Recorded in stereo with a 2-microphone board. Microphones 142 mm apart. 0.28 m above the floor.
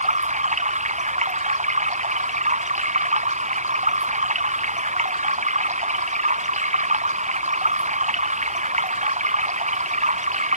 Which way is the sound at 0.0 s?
55° right (ahead or behind).